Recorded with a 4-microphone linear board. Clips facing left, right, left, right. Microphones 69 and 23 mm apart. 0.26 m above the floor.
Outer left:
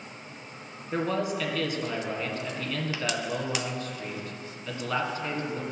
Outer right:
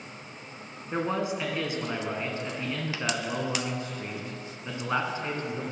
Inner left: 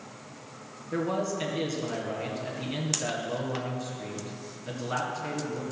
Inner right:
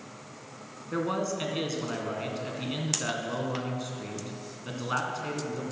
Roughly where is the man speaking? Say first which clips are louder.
Outer left 1 dB, even; right.